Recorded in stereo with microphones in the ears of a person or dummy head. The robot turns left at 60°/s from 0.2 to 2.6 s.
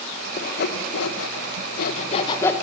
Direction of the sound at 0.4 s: 35° left (ahead or behind).